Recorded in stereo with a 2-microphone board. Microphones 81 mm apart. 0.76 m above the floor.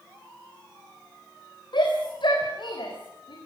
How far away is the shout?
About 3.5 m.